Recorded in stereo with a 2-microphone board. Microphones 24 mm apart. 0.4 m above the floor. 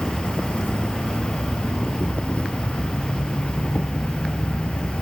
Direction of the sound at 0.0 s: 65° left (ahead or behind).